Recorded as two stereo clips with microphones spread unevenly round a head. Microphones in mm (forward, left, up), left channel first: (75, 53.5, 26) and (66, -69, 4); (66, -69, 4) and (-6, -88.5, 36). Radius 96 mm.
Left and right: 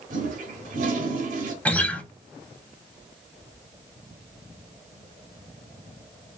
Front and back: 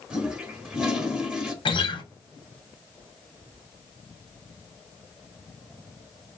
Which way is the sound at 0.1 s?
105° right.